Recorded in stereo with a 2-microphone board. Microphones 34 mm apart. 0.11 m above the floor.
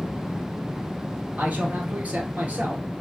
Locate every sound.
1.4 s a man speaking: 50° right (ahead or behind), 1.5 m